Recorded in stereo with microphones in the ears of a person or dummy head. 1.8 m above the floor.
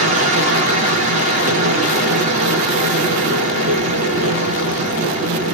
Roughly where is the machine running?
Right.